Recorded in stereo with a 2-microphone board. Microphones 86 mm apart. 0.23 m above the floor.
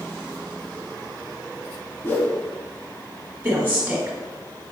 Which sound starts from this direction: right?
A woman speaking, at 3.4 s.